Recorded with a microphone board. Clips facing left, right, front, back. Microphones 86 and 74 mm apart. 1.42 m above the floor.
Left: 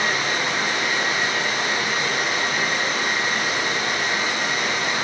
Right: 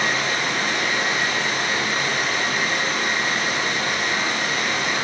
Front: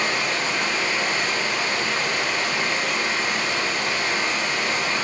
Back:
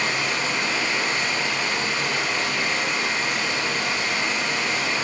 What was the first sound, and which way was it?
Running water, 15° left.